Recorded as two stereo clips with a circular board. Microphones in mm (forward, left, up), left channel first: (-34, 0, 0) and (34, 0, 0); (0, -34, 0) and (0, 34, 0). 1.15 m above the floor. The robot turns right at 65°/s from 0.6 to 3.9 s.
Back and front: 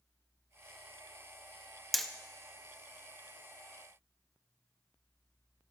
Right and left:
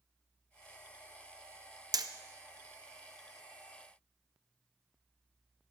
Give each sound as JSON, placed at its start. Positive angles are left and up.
{"t": 1.9, "sound": "hammering", "azimuth_deg": 90, "distance_m": 0.8}